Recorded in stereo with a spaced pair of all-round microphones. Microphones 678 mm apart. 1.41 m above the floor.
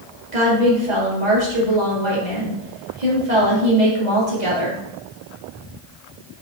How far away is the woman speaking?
About 2.5 m.